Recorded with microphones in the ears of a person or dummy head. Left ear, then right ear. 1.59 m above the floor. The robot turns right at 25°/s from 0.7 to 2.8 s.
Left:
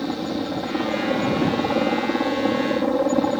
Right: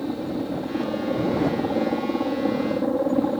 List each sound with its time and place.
0.0 s a helicopter: 45° left; by 3.4 s 100° left